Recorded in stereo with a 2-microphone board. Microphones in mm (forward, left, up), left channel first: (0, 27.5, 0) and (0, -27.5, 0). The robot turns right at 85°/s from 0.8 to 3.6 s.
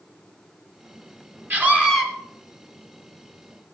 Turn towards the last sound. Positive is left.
turn(degrees=135)